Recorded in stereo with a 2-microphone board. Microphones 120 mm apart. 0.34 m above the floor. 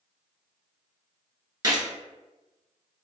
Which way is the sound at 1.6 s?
30° right (ahead or behind).